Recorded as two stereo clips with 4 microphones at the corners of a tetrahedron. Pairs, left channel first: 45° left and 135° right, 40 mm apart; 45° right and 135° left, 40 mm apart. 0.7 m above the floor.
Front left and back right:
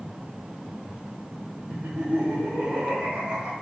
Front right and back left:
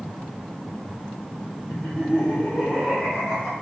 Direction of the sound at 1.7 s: 85° right.